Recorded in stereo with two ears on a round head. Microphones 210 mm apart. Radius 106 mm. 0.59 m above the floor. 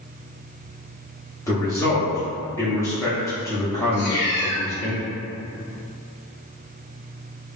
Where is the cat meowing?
25° left (ahead or behind), 1.2 m.